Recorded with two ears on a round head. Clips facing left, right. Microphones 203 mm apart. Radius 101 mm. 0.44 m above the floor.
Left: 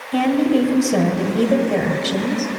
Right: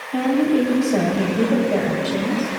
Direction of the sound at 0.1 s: 60° left (ahead or behind).